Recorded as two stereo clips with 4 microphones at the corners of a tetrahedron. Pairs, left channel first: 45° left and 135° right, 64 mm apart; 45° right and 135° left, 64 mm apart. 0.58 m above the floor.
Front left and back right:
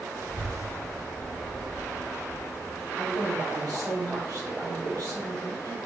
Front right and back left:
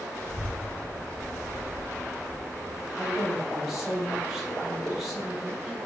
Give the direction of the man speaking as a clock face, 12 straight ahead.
5 o'clock.